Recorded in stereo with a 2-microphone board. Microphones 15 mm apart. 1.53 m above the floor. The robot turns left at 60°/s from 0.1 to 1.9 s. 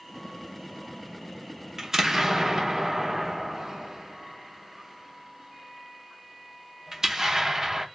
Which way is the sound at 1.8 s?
35° right (ahead or behind).